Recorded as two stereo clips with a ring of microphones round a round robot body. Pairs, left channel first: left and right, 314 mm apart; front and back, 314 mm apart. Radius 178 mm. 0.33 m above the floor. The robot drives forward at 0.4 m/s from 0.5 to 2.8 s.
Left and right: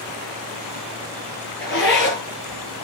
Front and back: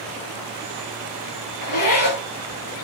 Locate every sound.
1.6 s a zipper: 35° left, 5.5 m